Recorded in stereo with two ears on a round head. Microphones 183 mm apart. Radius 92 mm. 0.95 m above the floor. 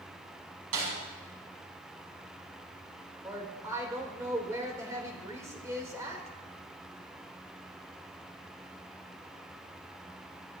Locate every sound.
0.7 s a snare drum: 80° right, 7.5 m
3.2 s a woman speaking: 15° right (ahead or behind), 3.5 m